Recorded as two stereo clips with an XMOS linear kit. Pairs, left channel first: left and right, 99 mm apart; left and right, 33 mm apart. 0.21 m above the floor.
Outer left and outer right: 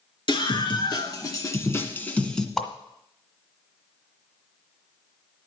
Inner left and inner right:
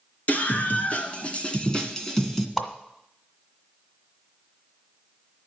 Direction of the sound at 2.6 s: 5° left (ahead or behind).